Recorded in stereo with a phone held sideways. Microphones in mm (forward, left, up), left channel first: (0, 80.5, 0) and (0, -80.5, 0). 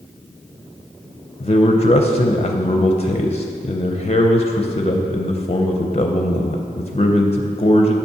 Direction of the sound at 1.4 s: 40° left (ahead or behind).